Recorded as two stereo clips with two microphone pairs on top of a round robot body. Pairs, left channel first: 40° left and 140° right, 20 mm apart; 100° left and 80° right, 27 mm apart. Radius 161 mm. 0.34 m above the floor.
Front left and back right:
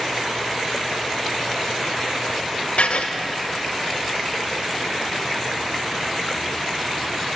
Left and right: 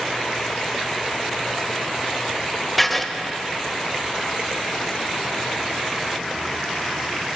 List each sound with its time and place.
2.8 s writing: 20° left, 1.0 m